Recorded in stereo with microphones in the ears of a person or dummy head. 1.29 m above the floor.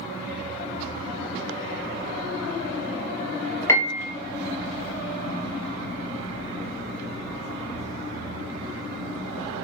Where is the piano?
10° left (ahead or behind), 0.8 m.